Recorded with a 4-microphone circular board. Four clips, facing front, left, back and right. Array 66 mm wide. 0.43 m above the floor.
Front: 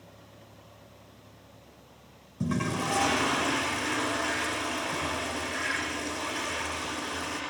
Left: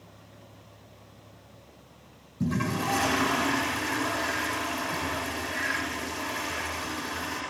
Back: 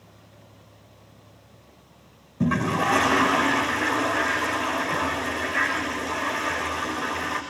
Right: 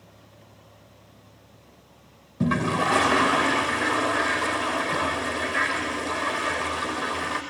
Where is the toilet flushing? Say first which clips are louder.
Right 5 dB, back 7 dB; 125° right, 7 m.